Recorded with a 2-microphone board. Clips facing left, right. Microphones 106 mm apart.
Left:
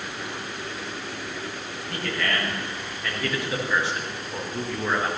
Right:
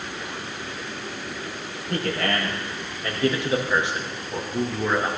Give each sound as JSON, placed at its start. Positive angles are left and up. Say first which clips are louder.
{"t": 1.9, "sound": "a man speaking", "louder": "right 3 dB", "side_deg": -40, "distance_m": 5.5}